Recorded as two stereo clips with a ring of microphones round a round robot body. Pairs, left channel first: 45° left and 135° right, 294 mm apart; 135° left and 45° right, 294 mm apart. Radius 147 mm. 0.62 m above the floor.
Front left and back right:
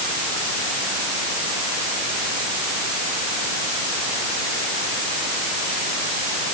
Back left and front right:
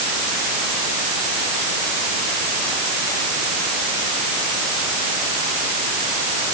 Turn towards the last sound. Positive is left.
No sound to turn to.